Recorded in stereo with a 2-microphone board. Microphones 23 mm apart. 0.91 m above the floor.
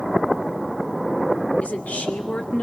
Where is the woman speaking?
80° left, 2.5 m.